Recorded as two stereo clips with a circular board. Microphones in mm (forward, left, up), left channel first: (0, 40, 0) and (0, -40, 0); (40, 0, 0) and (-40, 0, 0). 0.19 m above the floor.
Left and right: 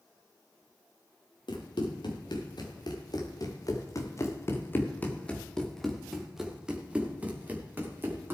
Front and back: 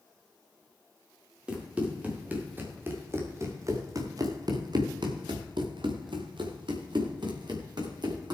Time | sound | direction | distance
1.5 | running footsteps | 105° left | 4 m